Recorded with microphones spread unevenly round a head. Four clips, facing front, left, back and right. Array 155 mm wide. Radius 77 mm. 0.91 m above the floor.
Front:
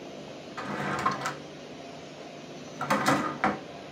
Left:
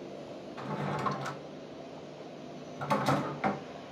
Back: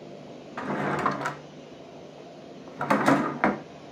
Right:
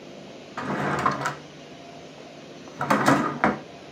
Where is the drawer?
120° right, 0.7 m.